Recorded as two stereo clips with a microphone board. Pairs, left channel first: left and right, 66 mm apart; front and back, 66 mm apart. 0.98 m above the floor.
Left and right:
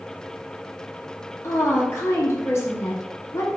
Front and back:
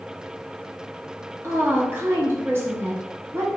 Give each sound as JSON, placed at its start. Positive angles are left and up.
{"t": 1.4, "sound": "a woman speaking", "azimuth_deg": 130, "distance_m": 1.1}